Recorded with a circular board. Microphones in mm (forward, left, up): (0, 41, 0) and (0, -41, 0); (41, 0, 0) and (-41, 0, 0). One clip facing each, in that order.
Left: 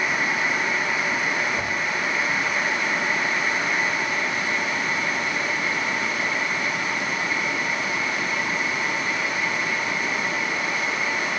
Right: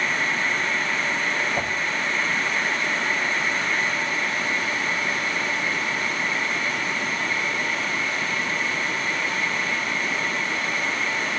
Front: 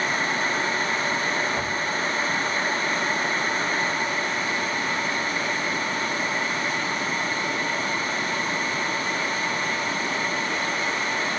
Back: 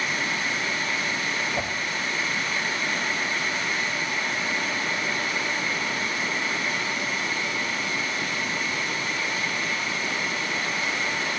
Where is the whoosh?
90° right, 6.5 m.